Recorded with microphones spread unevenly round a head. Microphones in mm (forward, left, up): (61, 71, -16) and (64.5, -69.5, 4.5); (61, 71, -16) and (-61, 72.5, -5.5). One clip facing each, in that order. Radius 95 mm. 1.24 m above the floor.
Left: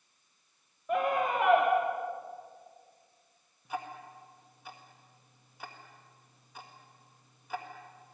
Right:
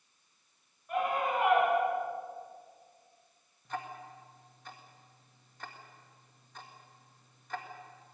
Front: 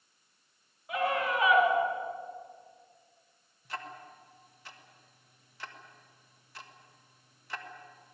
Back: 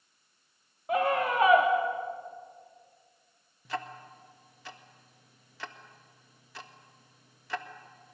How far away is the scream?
About 3 m.